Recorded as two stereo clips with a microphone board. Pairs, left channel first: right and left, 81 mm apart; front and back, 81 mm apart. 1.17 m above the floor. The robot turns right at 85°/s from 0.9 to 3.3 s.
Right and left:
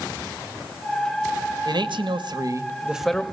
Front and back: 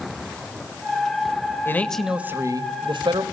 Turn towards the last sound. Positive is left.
turn(degrees=-160)